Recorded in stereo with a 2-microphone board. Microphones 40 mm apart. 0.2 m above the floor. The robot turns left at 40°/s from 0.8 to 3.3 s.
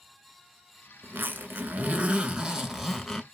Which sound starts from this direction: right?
A zipper, at 1.0 s.